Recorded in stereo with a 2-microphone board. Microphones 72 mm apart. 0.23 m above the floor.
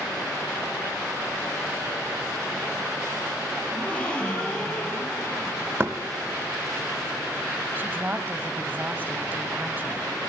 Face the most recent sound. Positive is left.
turn(degrees=-25)  # may be behind; listen again after turning